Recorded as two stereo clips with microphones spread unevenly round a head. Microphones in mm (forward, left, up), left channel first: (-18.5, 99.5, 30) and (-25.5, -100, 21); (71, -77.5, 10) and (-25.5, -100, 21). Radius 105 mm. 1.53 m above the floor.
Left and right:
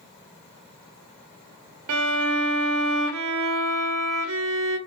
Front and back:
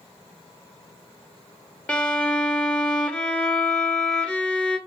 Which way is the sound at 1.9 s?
70° right.